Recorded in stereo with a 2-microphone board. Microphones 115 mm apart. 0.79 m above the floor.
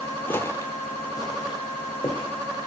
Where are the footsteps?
20° left (ahead or behind), 0.8 m; by 2.3 s 35° left (ahead or behind), 2.5 m.